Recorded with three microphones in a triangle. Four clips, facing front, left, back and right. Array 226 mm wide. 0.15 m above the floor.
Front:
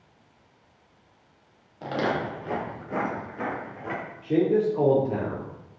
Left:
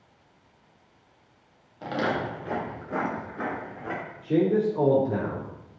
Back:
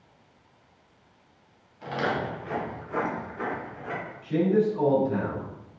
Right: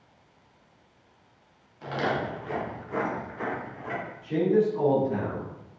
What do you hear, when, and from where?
1.8 s footsteps: 30° left, 3.5 m; by 4.0 s 40° left, 6.5 m
4.2 s a man speaking: 40° left, 3.5 m